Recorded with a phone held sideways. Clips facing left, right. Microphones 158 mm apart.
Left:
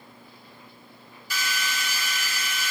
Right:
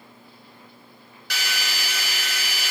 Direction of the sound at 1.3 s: 75° right (ahead or behind).